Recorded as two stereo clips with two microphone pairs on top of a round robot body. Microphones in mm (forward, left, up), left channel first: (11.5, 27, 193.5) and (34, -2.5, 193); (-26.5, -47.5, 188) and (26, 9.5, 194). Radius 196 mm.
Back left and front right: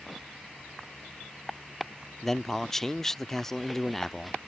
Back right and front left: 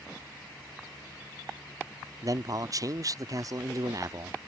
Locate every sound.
2.2 s a man speaking: 50° left